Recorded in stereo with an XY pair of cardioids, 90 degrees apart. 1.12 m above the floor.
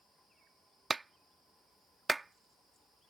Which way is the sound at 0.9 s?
20° right.